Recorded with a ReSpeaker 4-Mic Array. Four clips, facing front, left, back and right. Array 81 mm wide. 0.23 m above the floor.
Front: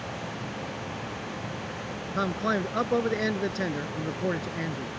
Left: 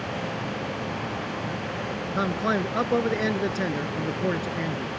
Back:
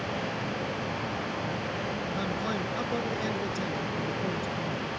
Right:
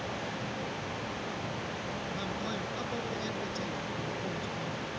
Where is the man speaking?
55° left.